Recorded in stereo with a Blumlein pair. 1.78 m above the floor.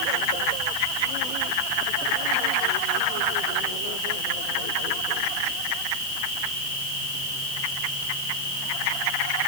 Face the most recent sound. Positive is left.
No sound to turn to.